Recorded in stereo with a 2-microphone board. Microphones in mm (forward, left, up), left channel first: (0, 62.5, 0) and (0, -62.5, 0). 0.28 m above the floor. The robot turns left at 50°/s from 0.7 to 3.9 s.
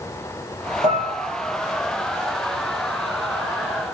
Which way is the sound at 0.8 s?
60° right (ahead or behind).